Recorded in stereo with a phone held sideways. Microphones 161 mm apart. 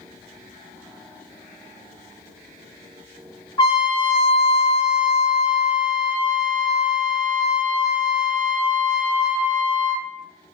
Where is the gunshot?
I don't hear a gunshot.